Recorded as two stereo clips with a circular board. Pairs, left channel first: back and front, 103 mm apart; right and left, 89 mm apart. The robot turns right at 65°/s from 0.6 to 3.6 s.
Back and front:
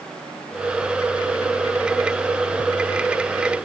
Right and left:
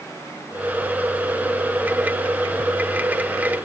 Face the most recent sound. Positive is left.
No sound to turn to.